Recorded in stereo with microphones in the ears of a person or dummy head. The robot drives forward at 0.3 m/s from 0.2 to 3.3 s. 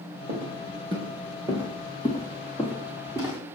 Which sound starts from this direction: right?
Footsteps, at 0.3 s.